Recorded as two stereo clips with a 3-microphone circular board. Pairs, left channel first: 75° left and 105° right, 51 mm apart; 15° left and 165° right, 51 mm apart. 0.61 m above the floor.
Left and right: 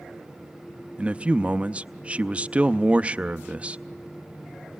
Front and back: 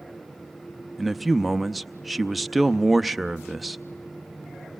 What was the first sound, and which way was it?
A man speaking, 75° right.